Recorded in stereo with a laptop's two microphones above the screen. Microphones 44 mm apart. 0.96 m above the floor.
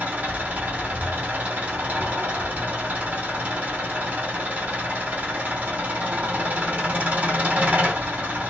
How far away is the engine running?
About 2 m.